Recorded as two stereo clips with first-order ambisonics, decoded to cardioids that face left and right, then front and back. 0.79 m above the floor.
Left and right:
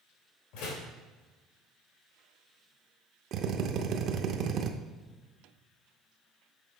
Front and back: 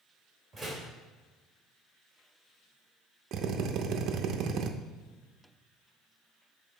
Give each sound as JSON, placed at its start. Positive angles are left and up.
{"t": 0.5, "sound": "a door slam", "azimuth_deg": 95, "distance_m": 2.0}
{"t": 3.3, "sound": "a drill", "azimuth_deg": -135, "distance_m": 0.6}